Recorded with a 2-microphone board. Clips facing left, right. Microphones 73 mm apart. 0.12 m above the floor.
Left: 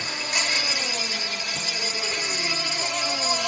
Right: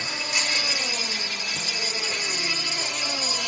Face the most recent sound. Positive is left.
turn(degrees=40)  # may be behind; listen again after turning